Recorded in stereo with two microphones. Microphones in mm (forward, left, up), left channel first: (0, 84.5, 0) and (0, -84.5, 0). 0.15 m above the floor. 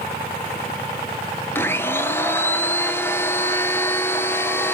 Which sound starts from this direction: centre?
A blender, at 1.6 s.